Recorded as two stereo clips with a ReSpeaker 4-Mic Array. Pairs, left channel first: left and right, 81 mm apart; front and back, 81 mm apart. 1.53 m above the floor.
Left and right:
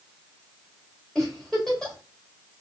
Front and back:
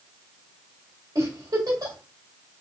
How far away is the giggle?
About 1.8 m.